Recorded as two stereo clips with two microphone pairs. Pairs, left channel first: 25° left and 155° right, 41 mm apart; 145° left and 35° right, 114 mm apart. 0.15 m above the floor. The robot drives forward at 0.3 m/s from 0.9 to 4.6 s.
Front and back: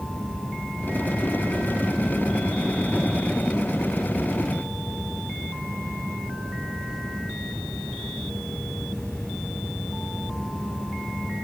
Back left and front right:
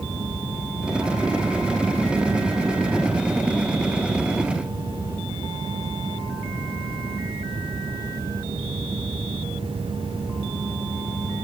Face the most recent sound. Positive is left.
No sound to turn to.